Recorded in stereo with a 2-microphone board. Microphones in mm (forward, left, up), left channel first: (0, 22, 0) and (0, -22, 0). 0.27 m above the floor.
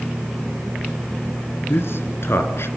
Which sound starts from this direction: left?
A man speaking, at 1.7 s.